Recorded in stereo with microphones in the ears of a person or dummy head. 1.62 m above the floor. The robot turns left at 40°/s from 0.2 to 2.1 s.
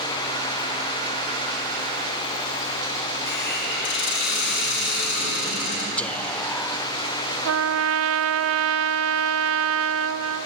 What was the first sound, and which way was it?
A hiss, 70° left (ahead or behind).